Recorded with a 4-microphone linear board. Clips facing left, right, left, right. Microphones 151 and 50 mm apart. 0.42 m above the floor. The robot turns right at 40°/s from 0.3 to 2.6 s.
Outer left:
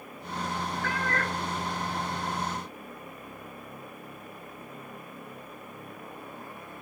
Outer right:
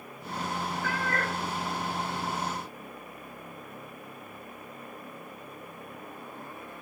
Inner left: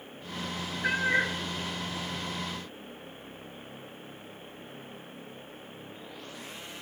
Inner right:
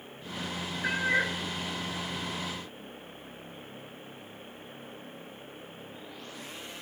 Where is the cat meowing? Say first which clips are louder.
Even, inner left 1 dB; 10° right (ahead or behind), 2.5 m; by 1.4 s 30° right (ahead or behind), 2.5 m.